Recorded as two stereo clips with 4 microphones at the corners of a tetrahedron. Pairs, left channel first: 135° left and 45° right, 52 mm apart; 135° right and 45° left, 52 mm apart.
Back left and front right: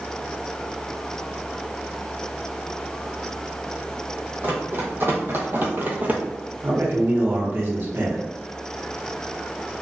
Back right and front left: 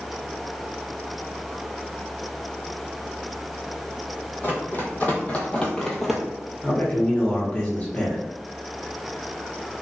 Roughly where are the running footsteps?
Right.